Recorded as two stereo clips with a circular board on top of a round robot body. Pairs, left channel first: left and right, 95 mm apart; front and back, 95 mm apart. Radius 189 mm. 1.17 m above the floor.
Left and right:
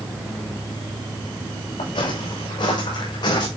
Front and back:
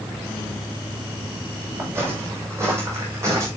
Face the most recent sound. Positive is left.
turn(degrees=125)